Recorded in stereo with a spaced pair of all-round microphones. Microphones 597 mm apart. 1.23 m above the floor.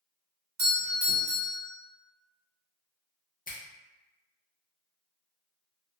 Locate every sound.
0.6 s a doorbell: 45° right (ahead or behind), 1.0 m
3.5 s a finger snap: 15° left (ahead or behind), 0.5 m